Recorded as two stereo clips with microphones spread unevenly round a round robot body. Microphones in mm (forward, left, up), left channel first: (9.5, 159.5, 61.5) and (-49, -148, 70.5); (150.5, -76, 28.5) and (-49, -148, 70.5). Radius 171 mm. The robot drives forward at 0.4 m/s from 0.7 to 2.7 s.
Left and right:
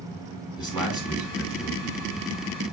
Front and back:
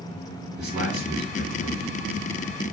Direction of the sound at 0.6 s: 165° left.